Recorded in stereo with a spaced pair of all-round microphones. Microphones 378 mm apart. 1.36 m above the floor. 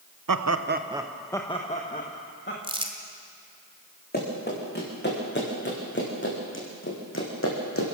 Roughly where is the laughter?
Right.